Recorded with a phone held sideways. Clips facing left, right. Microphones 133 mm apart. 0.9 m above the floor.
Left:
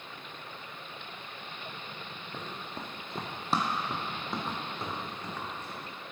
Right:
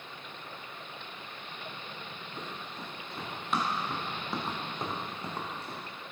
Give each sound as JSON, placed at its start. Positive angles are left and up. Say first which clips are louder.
{"t": 2.3, "sound": "running footsteps", "louder": "left 2 dB", "side_deg": 65, "distance_m": 2.0}